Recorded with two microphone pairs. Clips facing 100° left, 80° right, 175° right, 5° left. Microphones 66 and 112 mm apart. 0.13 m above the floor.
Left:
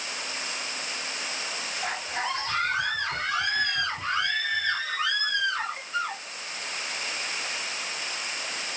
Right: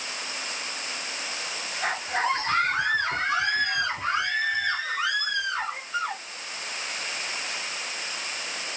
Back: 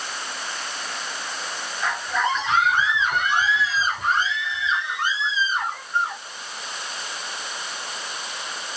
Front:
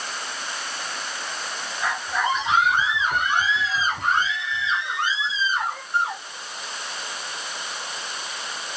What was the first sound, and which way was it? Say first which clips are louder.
A scream: right 6 dB, back 1 dB; 75° right.